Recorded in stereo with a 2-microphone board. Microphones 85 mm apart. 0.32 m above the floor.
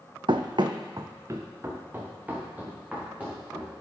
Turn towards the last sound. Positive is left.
turn(degrees=-15)  # may be behind; listen again after turning